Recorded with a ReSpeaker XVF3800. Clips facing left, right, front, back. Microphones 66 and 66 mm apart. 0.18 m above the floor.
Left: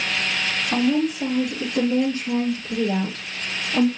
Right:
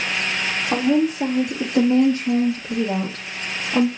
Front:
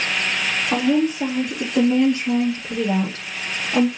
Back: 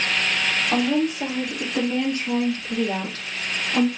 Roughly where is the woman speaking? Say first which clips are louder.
Right 2 dB, front 4 dB; right.